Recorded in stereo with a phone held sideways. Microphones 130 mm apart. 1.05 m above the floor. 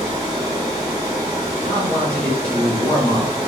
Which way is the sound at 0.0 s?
30° right (ahead or behind).